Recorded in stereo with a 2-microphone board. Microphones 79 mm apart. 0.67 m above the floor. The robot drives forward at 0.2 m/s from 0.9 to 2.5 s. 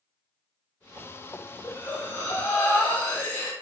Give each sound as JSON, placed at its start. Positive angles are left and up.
{"t": 1.6, "sound": "breathing", "side_deg": 25, "distance_m": 0.7}